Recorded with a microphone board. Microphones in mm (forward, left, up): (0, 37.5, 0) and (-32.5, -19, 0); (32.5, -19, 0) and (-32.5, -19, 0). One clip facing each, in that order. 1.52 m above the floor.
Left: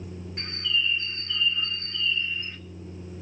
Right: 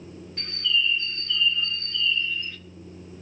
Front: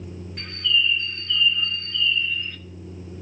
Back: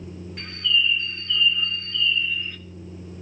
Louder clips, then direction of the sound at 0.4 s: Right 2 dB, even; 95° left.